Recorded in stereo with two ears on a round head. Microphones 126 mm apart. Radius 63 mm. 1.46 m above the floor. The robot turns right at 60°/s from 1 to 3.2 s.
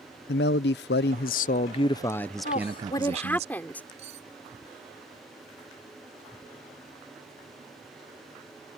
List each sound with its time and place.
0.3 s a man speaking: 95° left; by 3.5 s 135° right
2.5 s a woman speaking: 125° left; by 3.8 s 170° left
4.0 s cutlery clinking: 50° right (ahead or behind)